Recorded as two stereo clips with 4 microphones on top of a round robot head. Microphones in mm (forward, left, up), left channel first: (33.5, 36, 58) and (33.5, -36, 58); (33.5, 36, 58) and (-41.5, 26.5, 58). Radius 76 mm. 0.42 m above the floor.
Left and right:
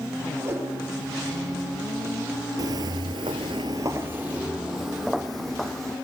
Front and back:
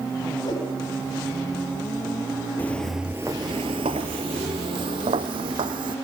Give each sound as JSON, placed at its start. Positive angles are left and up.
{"t": 0.5, "sound": "a whoosh", "azimuth_deg": -35, "distance_m": 10.0}
{"t": 2.6, "sound": "footsteps", "azimuth_deg": -65, "distance_m": 0.6}